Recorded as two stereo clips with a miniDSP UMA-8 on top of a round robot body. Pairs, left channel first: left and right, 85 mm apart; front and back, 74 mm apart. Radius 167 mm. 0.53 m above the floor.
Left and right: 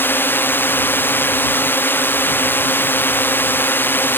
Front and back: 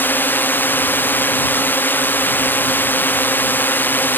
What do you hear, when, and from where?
0.0 s a drone: 45° left